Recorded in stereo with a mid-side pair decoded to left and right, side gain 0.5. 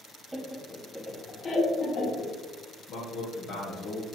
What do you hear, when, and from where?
0.3 s laughter: 10° right, 0.9 m; by 2.3 s 55° left, 1.8 m
2.9 s a man speaking: 70° left, 1.0 m